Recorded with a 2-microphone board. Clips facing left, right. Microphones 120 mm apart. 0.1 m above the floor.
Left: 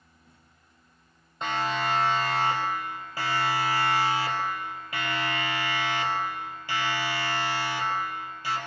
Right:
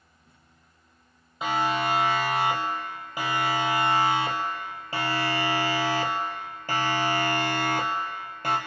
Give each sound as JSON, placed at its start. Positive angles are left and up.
{"t": 1.4, "sound": "a siren", "side_deg": -5, "distance_m": 4.0}